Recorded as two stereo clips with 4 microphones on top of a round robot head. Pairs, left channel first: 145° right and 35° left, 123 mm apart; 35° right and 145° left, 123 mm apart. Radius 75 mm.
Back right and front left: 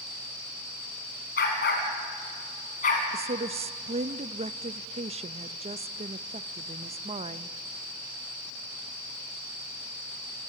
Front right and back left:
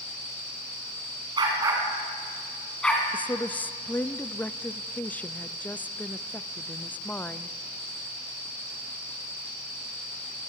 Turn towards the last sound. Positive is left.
turn(degrees=40)